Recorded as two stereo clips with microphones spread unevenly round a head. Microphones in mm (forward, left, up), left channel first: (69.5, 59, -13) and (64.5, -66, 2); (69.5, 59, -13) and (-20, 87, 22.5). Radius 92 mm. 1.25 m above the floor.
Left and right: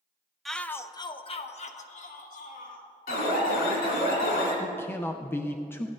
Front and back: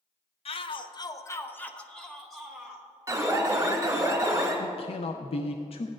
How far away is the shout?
About 0.8 m.